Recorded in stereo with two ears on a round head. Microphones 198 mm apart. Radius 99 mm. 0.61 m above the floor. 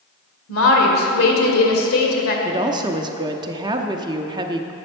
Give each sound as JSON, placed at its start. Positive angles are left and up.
{"t": 0.5, "sound": "a woman speaking", "side_deg": 70, "distance_m": 2.0}
{"t": 2.5, "sound": "a woman speaking", "side_deg": -20, "distance_m": 0.7}